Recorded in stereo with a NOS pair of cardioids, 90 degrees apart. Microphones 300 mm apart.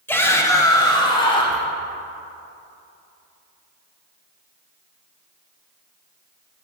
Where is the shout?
5° left, 2.5 m; by 1.6 s 15° left, 4.5 m.